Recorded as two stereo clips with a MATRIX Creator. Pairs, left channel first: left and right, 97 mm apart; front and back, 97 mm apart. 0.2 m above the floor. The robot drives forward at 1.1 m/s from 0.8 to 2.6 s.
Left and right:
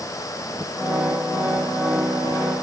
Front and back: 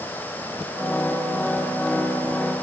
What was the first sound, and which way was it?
Only background noise.